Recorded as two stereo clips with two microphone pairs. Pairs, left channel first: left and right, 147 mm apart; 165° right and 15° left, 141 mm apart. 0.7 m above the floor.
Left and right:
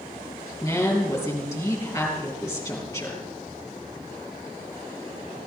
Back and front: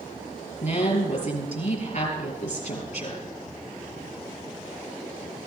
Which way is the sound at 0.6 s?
165° left.